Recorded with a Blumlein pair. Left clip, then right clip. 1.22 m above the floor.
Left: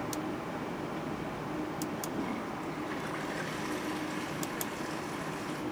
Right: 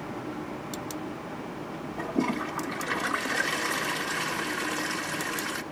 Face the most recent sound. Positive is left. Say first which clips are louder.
# right 7 dB
turn(degrees=-35)